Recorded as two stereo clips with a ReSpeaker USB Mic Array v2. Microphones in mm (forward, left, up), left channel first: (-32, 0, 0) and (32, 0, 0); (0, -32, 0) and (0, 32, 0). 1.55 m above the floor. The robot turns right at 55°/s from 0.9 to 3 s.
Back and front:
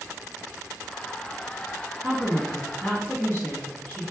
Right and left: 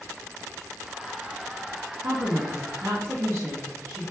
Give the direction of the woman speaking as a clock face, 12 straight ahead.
10 o'clock.